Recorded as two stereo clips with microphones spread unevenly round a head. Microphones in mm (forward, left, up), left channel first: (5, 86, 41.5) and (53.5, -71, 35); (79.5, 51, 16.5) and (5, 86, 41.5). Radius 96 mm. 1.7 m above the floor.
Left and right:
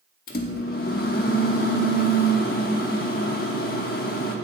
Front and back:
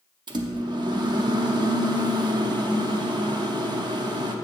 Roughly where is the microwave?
Behind left.